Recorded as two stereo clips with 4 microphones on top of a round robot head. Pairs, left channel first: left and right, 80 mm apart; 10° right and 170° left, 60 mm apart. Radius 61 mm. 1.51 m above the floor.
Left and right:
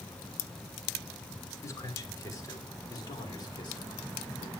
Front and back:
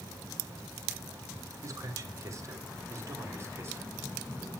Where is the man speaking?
140° left, 5.5 m; by 4.5 s 115° left, 6 m.